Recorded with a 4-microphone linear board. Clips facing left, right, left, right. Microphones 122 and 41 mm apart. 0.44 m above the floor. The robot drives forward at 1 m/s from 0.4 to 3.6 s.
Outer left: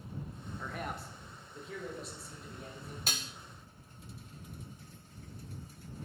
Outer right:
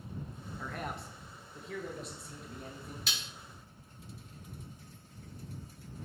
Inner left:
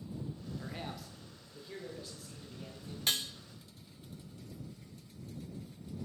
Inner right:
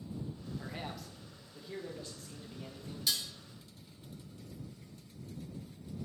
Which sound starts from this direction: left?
Dishes clattering, at 3.1 s.